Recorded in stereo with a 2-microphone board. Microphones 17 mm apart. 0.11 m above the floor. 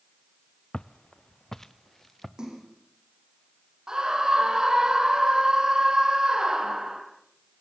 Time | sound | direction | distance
0.7 | footsteps | 65° left (ahead or behind) | 0.6 m
2.4 | a splash | 40° right (ahead or behind) | 5.5 m
3.9 | a scream | 45° right (ahead or behind) | 3.5 m